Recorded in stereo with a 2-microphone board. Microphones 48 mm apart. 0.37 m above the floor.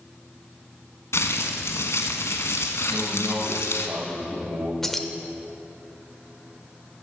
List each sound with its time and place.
1.1 s crumpling: 75° left (ahead or behind), 1.3 m
2.9 s a man speaking: 45° right (ahead or behind), 2.5 m
4.8 s keys jangling: 10° left (ahead or behind), 0.7 m